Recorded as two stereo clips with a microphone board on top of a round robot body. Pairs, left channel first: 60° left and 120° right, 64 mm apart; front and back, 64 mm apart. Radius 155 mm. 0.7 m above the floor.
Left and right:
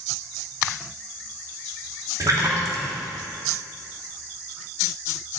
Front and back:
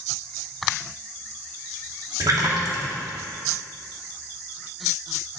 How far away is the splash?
About 2.5 m.